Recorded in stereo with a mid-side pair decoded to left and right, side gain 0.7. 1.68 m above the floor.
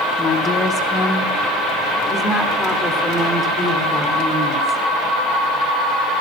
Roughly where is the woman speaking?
Ahead left.